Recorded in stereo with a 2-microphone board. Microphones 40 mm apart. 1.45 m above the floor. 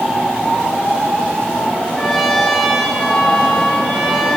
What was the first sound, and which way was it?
A trumpet, centre (ahead or behind).